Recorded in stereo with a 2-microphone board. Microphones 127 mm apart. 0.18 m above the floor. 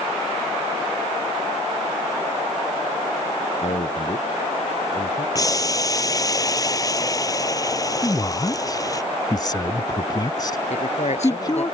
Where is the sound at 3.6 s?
55° left (ahead or behind).